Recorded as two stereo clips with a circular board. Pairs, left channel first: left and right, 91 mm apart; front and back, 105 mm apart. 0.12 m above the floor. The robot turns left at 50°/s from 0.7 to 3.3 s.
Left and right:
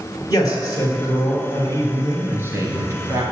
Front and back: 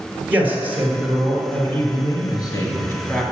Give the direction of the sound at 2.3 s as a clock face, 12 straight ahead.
1 o'clock.